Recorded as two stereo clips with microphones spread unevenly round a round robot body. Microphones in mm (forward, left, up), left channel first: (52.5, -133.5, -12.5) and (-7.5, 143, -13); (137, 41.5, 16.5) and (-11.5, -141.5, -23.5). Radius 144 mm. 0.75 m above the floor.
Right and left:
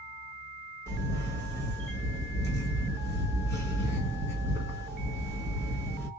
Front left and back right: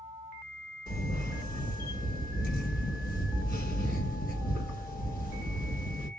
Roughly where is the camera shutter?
Ahead.